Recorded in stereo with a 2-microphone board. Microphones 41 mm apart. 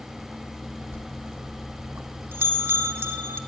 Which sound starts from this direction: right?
A bell, at 0.9 s.